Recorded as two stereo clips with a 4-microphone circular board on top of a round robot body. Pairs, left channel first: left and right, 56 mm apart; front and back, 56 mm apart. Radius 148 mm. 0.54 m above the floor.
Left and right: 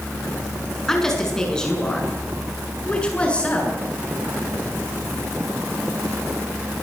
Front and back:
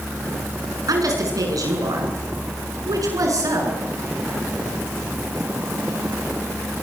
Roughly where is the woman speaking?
Behind.